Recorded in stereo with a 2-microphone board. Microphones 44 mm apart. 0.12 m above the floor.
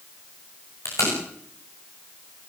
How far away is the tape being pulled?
About 8.5 m.